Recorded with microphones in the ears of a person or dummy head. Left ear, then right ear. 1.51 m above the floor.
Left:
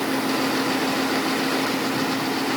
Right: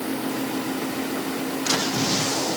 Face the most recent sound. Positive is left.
No sound to turn to.